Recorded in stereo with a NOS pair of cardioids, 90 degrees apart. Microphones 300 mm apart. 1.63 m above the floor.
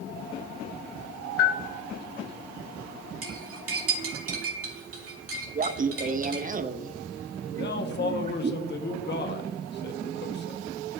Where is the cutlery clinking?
50° right, 2 m.